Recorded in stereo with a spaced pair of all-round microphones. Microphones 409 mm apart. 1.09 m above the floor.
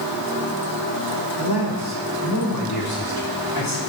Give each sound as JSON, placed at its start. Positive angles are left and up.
{"t": 1.4, "sound": "a man speaking", "side_deg": 70, "distance_m": 4.0}